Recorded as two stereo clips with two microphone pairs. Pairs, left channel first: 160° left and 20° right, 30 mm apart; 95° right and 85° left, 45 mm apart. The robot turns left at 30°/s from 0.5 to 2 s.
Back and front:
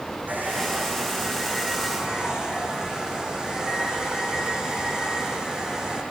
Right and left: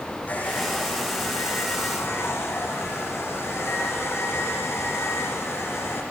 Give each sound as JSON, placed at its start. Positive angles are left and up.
{"t": 0.3, "sound": "a hair dryer", "azimuth_deg": -40, "distance_m": 9.5}